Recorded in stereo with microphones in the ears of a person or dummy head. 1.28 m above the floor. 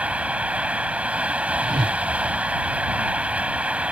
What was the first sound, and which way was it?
Running water, 10° right (ahead or behind).